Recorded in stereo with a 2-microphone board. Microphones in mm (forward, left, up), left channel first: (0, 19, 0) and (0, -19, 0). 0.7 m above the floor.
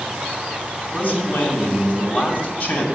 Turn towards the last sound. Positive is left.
turn(degrees=45)  # may be behind; listen again after turning